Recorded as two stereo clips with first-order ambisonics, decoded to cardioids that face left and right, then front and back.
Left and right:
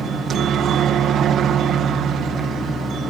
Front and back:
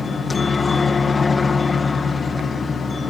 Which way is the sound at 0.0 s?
65° right.